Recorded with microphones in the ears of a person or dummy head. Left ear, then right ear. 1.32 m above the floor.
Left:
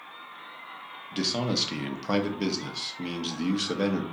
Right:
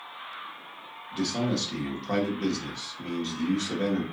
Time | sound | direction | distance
1.1 | a man speaking | 55° left (ahead or behind) | 0.8 m